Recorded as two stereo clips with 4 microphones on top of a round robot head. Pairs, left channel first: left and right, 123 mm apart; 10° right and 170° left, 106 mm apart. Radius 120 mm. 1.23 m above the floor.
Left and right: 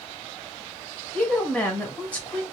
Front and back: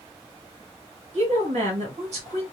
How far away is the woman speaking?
About 1.6 m.